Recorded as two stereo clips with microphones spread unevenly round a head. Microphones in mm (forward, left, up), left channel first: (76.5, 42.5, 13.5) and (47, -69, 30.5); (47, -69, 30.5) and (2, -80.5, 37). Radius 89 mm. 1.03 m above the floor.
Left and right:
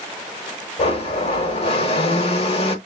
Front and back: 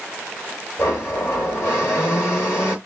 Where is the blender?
70° left, 0.9 m.